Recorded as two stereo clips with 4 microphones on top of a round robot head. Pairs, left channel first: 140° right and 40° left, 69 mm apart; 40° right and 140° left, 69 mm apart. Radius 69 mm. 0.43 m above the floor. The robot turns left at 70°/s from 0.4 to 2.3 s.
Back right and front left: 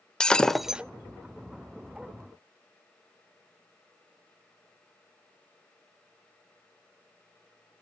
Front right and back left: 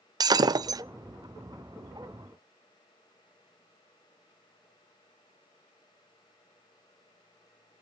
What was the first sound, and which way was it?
Breaking glass, 145° left.